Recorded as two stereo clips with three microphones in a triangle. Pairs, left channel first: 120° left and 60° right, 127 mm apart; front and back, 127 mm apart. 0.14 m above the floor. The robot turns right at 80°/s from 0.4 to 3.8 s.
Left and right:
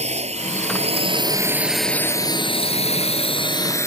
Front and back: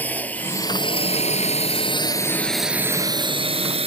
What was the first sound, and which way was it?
A drone, 75° right.